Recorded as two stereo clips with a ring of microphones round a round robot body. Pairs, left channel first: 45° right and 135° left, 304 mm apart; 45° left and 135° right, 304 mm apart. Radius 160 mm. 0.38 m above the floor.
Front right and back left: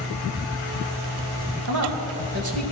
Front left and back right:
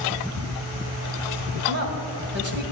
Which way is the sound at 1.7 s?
170° left.